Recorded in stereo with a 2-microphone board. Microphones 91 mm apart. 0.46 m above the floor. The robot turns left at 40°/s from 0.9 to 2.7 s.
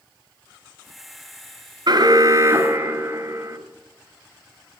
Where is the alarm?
120° right, 2 m; by 3.6 s 155° right, 2 m.